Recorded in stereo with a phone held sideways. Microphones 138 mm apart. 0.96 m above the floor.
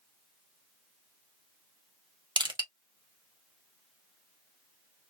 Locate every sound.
2.4 s crushing: 35° right (ahead or behind), 1.0 m